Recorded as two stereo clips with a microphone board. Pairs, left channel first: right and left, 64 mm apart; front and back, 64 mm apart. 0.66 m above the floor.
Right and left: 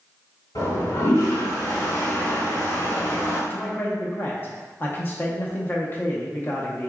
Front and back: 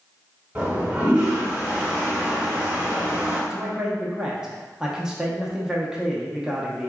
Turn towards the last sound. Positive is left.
turn(degrees=-110)